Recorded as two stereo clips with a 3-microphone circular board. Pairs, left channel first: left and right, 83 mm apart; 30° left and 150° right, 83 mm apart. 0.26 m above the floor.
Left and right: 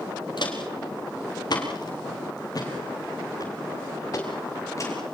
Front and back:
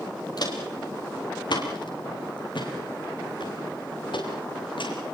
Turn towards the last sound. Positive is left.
turn(degrees=35)